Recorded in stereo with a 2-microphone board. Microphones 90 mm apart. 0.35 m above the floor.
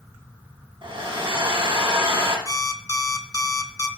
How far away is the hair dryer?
About 3 m.